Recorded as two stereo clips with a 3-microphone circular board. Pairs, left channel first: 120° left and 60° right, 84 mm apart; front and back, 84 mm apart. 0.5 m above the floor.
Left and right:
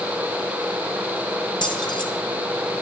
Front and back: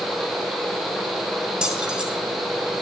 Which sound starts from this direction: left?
Keys jangling, at 1.6 s.